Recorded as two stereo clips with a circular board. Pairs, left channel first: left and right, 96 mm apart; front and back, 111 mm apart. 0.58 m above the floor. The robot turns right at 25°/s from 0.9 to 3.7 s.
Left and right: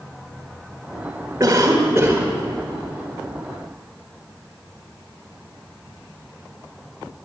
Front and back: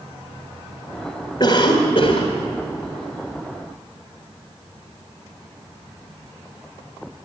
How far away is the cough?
About 1.7 m.